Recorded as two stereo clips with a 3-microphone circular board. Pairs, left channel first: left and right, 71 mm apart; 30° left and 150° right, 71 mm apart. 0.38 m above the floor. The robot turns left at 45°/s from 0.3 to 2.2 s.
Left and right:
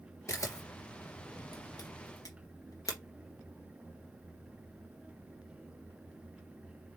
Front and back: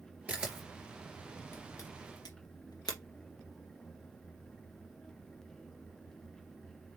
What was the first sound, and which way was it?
A camera shutter, 140° left.